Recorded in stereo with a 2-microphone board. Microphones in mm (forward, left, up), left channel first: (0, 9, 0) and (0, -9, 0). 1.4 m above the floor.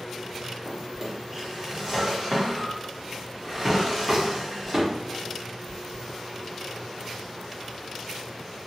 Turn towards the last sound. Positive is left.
turn(degrees=-20)  # may be behind; listen again after turning